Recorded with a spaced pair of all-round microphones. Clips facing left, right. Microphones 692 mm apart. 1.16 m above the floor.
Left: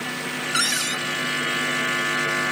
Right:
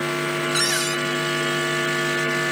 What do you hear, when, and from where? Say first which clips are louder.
0.5 s a cupboard door: right 6 dB; 35° left (ahead or behind)